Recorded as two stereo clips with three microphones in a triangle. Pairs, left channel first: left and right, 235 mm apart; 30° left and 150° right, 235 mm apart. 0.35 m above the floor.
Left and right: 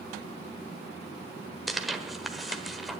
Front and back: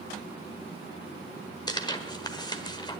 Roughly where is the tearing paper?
Ahead.